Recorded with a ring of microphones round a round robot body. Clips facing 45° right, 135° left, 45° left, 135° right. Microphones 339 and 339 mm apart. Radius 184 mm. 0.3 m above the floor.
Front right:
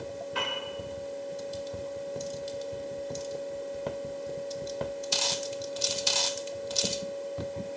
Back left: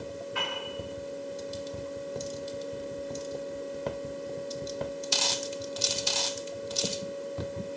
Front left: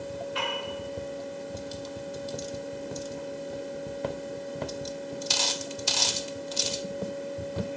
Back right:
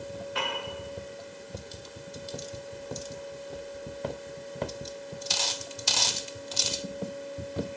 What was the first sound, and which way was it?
A piano, 95° right.